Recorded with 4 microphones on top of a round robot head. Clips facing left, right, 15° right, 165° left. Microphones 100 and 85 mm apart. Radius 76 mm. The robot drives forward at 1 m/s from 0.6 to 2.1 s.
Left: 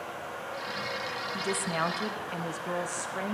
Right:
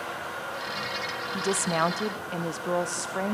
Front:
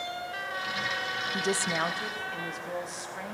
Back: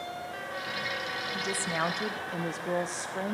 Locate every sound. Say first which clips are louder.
1.3 s a woman speaking: right 5 dB, front 3 dB; 35° right, 0.6 m; by 3.4 s 145° right, 0.6 m